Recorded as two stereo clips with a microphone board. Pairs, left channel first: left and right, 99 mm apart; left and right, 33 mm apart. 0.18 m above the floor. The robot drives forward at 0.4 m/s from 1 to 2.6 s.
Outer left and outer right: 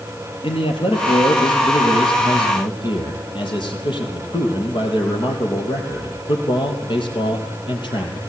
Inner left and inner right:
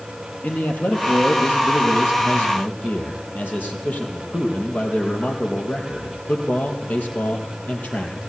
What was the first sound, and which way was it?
A man speaking, 60° left (ahead or behind).